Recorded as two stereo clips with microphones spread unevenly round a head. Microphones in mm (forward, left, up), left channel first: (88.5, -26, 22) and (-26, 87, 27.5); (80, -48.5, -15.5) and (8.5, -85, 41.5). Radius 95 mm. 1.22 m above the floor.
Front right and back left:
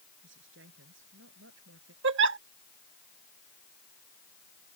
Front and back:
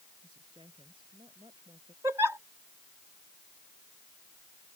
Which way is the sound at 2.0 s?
135° left.